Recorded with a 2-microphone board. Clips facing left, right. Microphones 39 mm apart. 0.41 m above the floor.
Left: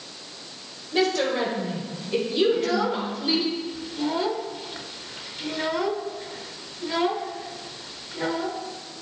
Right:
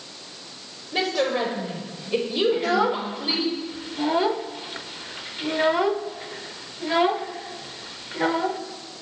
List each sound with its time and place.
0.9 s a woman speaking: 20° right (ahead or behind), 1.8 m
2.5 s a child speaking: 25° right (ahead or behind), 0.5 m